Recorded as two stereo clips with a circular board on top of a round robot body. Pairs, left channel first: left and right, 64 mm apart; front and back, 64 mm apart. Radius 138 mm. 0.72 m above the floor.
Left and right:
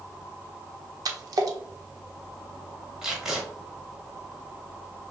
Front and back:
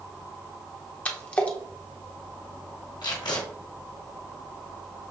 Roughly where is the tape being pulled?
Ahead.